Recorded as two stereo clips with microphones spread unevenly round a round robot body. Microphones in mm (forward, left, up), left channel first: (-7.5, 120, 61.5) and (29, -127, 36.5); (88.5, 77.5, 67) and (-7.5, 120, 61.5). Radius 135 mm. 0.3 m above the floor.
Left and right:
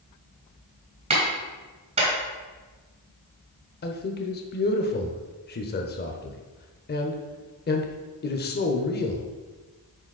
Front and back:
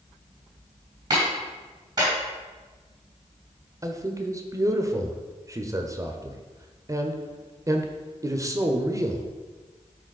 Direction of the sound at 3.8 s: 125° left.